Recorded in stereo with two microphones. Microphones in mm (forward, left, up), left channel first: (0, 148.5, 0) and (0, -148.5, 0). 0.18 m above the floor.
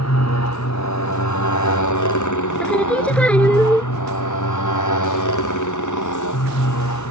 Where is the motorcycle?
60° left (ahead or behind); by 7.1 s 75° left (ahead or behind).